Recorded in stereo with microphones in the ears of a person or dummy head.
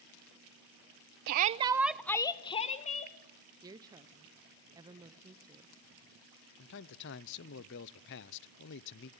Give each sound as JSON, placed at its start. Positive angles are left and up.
{"t": 1.3, "sound": "a shout", "side_deg": -45, "distance_m": 0.6}
{"t": 3.6, "sound": "a woman speaking", "side_deg": -20, "distance_m": 0.9}
{"t": 6.6, "sound": "a man speaking", "side_deg": 60, "distance_m": 0.7}